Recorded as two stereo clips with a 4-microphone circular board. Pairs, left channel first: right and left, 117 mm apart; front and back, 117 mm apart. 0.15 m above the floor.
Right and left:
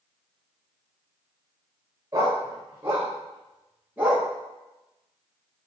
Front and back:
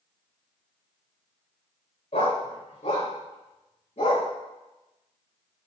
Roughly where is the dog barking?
Ahead left.